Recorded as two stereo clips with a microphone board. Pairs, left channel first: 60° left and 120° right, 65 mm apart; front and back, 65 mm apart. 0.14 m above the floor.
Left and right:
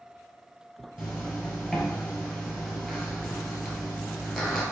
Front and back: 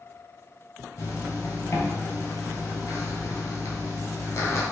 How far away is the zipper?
About 1.2 m.